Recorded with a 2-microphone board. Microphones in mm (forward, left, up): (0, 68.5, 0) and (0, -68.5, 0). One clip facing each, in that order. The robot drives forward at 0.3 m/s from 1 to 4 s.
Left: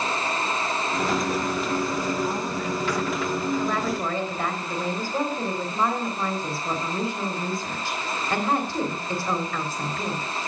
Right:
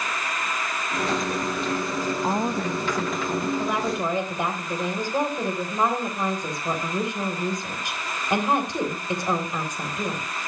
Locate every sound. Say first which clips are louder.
2.2 s a woman speaking: right 2 dB; 50° right (ahead or behind), 0.9 m; by 3.5 s 45° right (ahead or behind), 1.0 m
3.6 s a woman speaking: even; 15° right (ahead or behind), 3.5 m